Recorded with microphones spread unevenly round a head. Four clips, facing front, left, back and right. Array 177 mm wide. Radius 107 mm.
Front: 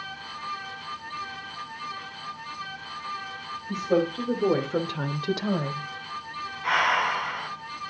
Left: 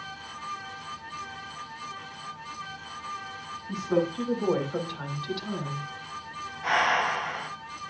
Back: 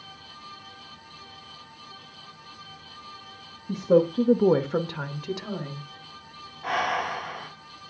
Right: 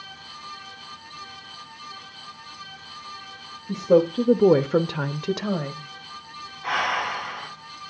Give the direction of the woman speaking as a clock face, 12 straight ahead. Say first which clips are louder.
Right 8 dB, back 4 dB; 5 o'clock.